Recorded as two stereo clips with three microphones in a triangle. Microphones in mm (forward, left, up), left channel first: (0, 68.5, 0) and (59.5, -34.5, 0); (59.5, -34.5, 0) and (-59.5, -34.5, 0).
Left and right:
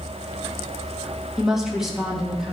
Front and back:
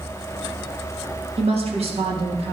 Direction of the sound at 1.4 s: 145° right.